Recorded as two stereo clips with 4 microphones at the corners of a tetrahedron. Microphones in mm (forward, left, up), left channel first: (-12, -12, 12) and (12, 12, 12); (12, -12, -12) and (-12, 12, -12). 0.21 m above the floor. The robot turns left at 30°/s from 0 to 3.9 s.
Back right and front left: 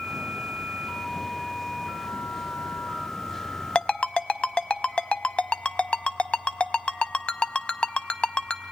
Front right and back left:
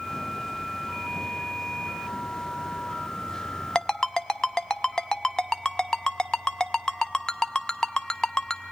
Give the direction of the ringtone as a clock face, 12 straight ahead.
3 o'clock.